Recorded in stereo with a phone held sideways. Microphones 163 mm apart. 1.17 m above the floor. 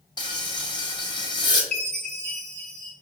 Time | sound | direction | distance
0.2 | frying | 25° left (ahead or behind) | 0.7 m
1.7 | a chime | 45° right (ahead or behind) | 1.3 m